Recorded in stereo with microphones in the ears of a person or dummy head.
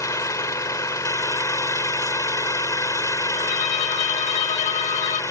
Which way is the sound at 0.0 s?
15° left (ahead or behind).